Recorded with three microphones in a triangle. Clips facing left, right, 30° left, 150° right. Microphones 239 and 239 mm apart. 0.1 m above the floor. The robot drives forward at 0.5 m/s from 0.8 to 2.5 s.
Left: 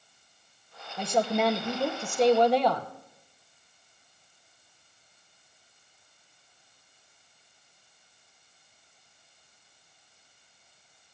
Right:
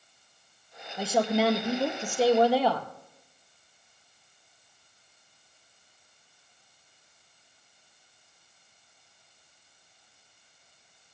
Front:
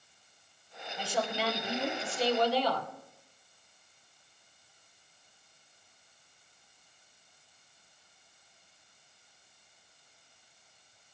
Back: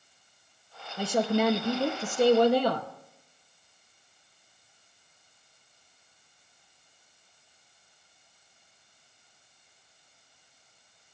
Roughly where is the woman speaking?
Behind.